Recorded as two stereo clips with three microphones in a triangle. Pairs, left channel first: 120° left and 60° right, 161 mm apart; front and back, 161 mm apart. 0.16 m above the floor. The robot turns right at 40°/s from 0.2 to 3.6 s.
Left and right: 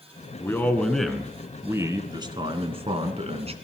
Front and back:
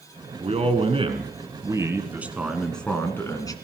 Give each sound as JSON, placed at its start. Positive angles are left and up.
{"t": 0.4, "sound": "a man speaking", "azimuth_deg": -175, "distance_m": 2.0}